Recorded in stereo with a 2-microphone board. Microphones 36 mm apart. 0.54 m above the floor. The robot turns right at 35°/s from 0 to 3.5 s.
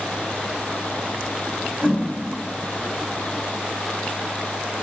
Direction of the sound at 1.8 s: 45° right (ahead or behind).